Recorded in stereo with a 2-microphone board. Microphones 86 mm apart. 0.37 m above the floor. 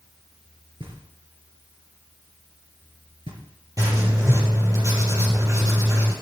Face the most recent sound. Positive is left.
turn(degrees=-40)  # may be behind; listen again after turning